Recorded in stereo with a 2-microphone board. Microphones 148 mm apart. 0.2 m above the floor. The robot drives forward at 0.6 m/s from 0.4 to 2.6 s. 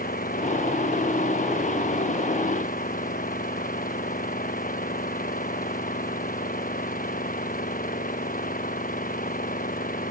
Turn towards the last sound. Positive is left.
turn(degrees=70)  # may be behind; listen again after turning